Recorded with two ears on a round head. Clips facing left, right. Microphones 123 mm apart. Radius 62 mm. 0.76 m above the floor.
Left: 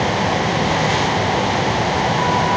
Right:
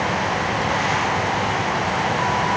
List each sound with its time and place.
Only background noise.